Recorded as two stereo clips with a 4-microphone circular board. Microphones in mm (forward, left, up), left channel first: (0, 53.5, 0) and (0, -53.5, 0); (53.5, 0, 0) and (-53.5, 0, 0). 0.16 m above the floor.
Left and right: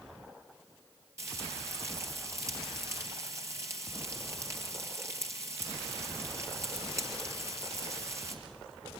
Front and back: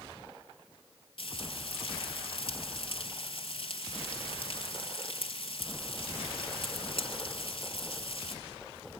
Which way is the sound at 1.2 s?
30° right.